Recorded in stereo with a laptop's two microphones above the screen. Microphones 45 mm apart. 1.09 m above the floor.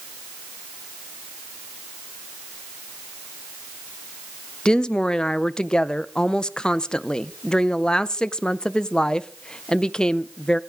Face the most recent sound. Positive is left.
turn(degrees=20)  # may be behind; listen again after turning